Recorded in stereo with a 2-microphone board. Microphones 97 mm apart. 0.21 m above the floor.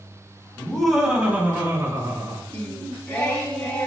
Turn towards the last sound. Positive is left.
turn(degrees=20)  # may be behind; listen again after turning